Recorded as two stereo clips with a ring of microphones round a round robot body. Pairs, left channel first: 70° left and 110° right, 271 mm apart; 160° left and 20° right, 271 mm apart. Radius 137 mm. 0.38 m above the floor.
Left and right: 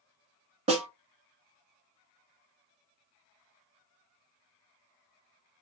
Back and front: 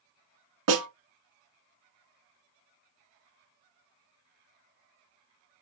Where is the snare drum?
45° right, 1.0 m.